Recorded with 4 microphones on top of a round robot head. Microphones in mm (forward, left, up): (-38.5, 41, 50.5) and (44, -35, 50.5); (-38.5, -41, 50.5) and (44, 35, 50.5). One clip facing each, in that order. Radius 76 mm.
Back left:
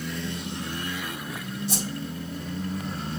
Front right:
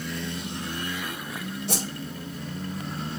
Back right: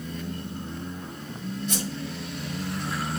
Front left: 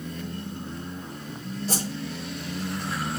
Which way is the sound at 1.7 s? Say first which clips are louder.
Front right 1 dB, front left 2 dB; 15° right.